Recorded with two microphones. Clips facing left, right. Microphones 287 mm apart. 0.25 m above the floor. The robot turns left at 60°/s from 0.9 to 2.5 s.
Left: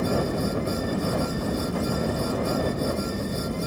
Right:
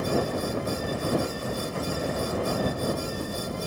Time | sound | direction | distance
0.0 | a helicopter | 125° left | ?